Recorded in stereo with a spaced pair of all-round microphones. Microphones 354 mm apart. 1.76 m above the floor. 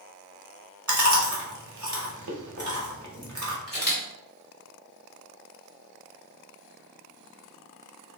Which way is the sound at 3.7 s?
40° left (ahead or behind).